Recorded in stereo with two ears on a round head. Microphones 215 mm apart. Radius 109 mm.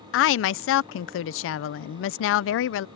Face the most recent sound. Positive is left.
turn(degrees=55)  # may be behind; listen again after turning